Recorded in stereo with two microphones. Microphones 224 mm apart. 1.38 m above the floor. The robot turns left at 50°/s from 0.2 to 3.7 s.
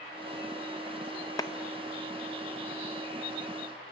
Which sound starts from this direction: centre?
A clap, at 1.4 s.